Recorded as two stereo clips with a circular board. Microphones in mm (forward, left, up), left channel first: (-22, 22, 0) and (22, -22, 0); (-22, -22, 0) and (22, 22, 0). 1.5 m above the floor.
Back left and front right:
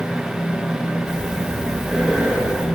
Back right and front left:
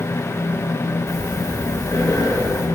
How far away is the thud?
No thud in this recording.